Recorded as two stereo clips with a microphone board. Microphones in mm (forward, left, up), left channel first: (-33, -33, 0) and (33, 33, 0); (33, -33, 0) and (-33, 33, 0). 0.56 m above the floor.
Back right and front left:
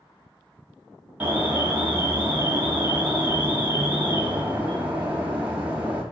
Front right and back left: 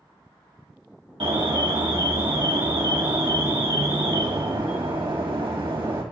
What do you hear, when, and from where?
1.2 s an alarm: 115° left, 2.5 m